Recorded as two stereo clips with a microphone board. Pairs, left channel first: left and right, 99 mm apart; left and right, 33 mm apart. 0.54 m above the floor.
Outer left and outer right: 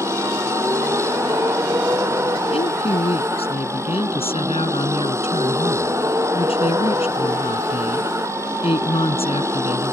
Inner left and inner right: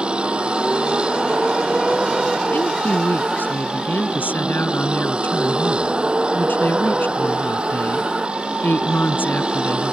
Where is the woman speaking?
80° left.